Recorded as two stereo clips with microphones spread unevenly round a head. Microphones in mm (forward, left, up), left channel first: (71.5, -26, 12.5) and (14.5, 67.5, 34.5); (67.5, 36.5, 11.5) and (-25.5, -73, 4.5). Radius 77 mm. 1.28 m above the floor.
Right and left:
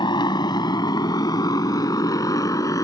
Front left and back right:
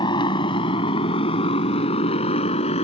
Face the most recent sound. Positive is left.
turn(degrees=5)